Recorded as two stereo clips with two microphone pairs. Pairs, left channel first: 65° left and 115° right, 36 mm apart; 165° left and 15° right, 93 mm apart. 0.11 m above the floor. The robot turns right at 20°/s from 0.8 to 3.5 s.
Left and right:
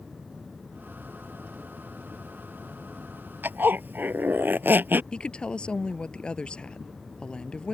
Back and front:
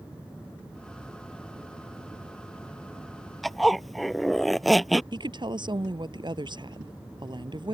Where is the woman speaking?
Straight ahead.